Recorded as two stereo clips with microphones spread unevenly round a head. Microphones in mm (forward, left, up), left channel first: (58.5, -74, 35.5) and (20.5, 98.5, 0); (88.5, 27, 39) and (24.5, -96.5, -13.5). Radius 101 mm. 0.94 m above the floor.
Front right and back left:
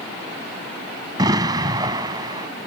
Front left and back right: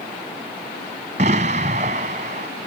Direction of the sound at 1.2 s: Straight behind.